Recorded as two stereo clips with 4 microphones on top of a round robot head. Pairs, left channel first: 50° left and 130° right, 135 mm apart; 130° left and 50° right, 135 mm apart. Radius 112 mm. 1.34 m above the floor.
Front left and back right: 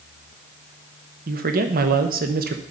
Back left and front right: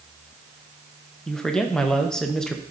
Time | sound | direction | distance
1.3 | a man speaking | 145° right | 0.8 m